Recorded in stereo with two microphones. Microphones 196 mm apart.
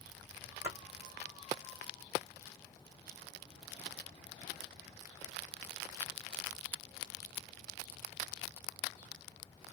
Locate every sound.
0.6 s a splash: 35° right (ahead or behind), 1.0 m